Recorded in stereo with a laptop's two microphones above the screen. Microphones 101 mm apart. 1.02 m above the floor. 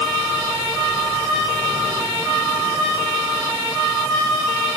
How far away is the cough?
No cough in this recording.